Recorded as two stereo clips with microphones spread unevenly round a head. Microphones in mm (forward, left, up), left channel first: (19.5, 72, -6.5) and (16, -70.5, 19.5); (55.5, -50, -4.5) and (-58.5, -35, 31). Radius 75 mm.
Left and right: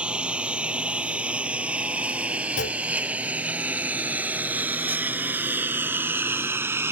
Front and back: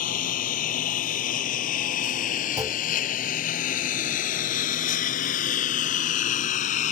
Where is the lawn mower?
10° right; by 6.9 s 25° right.